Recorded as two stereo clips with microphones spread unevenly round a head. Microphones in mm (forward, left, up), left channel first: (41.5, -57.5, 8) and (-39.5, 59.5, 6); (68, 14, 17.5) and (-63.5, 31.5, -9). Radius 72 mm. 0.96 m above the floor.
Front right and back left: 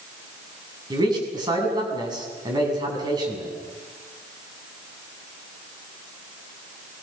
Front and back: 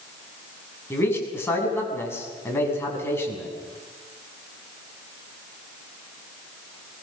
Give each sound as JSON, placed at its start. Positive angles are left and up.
{"t": 0.9, "sound": "a man speaking", "azimuth_deg": 65, "distance_m": 7.0}